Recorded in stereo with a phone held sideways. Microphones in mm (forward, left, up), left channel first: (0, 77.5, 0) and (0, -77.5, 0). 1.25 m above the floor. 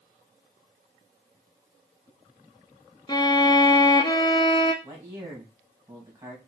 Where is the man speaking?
20° right (ahead or behind), 2 m.